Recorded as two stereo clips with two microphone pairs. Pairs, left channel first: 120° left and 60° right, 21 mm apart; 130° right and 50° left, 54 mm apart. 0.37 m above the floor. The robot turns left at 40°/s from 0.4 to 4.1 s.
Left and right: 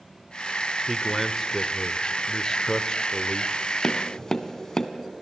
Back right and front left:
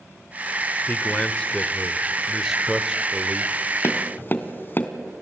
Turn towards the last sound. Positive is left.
turn(degrees=180)